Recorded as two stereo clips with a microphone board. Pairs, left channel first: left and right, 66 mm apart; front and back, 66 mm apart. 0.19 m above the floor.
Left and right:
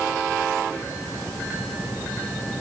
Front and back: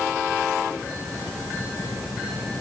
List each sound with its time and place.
Only background noise.